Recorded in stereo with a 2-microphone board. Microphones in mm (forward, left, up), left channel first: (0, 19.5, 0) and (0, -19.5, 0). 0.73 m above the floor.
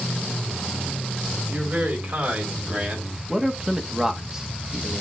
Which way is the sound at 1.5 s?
50° right (ahead or behind).